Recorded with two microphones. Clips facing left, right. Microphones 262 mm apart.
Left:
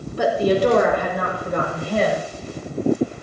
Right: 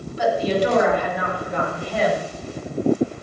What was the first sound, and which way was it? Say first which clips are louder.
A woman speaking: left 3 dB; 60° left (ahead or behind).